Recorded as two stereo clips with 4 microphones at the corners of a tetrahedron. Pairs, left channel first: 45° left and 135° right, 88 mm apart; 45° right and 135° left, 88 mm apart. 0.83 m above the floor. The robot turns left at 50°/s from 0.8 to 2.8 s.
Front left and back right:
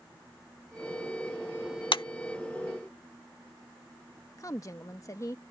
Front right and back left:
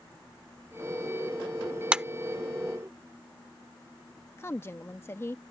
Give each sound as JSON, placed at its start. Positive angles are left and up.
{"t": 1.9, "sound": "a clap", "azimuth_deg": 55}
{"t": 4.4, "sound": "a woman speaking", "azimuth_deg": 5}